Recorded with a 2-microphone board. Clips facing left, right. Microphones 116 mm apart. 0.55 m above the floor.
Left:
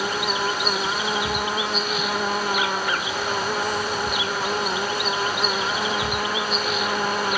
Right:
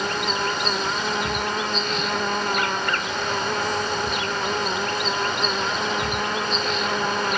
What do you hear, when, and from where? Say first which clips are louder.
0.0 s an insect: even; 5° left (ahead or behind)